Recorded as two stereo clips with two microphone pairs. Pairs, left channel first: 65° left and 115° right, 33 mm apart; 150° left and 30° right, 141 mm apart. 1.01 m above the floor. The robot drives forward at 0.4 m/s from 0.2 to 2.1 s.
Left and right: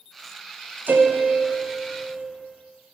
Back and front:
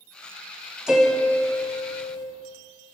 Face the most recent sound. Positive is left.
turn(degrees=-150)